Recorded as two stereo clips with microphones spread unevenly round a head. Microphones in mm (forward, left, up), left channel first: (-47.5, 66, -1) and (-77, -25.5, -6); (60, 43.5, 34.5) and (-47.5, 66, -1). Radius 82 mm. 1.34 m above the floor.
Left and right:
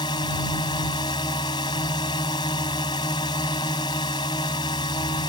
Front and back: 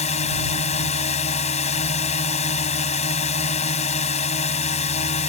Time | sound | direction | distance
0.0 | a drone | 5° left | ?